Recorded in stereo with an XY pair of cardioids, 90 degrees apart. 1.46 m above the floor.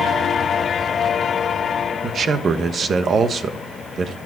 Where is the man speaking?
60° right, 1.2 m.